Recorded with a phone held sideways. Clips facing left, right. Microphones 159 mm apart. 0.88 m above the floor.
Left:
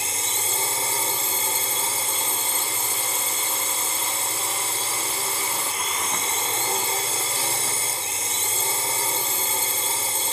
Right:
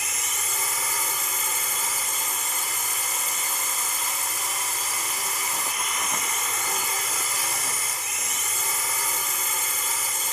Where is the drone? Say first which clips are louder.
Left 4 dB; 30° left (ahead or behind).